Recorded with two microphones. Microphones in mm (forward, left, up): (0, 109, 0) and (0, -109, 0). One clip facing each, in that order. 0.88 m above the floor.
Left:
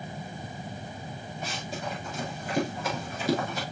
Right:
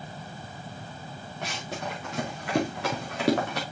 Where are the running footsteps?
75° right (ahead or behind), 5 m; by 3.6 s 70° right (ahead or behind), 4 m.